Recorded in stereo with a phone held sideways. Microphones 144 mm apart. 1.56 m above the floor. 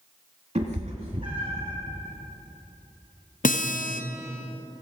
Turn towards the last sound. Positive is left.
turn(degrees=65)  # may be behind; listen again after turning